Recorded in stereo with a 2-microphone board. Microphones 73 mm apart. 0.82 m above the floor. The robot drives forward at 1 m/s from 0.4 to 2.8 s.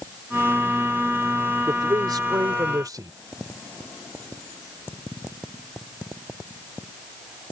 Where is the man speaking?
70° right (ahead or behind); by 3.1 s 55° right (ahead or behind).